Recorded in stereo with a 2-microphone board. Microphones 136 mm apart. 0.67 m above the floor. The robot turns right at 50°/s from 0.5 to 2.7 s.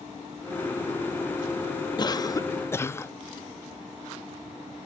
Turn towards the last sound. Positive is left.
turn(degrees=145)